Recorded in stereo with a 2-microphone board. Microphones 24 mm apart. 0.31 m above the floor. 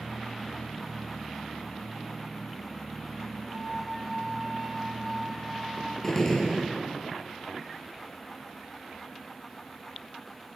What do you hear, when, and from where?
3.5 s a flute: 25° right (ahead or behind), 2.0 m
6.0 s a gunshot: 20° left (ahead or behind), 4.5 m